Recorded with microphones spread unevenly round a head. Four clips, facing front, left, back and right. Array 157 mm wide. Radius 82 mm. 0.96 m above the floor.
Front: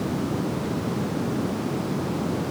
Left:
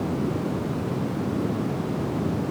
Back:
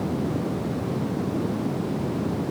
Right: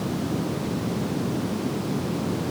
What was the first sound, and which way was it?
Only background noise.